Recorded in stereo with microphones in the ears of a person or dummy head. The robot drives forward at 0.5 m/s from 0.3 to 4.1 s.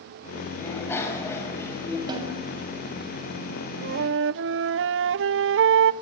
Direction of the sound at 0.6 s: 10° left (ahead or behind).